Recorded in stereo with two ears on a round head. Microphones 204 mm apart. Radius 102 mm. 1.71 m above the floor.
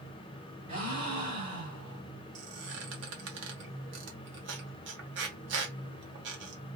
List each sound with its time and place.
0.7 s a gasp: 30° right (ahead or behind), 2.0 m
2.4 s a squeak: 55° right (ahead or behind), 1.0 m